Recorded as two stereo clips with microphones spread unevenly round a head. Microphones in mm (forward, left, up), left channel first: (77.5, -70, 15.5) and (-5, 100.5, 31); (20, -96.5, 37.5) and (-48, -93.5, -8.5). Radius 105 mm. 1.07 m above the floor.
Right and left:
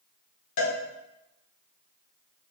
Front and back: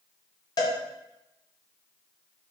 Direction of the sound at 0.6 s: 45° right.